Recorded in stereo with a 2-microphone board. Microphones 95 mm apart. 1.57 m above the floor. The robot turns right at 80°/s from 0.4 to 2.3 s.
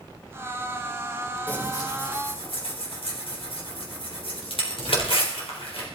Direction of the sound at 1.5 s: 15° left (ahead or behind).